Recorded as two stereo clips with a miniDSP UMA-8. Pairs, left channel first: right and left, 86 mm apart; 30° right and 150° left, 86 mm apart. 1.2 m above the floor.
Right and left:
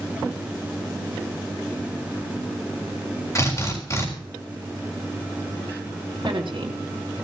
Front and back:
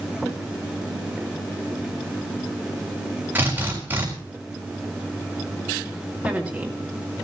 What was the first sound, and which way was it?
A drill, 140° right.